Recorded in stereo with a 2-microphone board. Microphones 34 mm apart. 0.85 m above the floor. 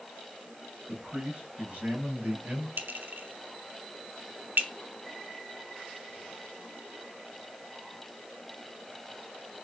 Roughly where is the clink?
Right.